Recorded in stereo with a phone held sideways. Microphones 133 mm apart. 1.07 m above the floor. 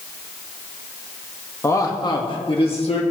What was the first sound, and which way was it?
A man speaking, 20° left (ahead or behind).